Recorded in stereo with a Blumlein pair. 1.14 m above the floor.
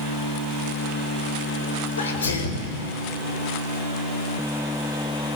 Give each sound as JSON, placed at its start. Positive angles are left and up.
{"t": 2.0, "sound": "a sneeze", "azimuth_deg": 70, "distance_m": 4.0}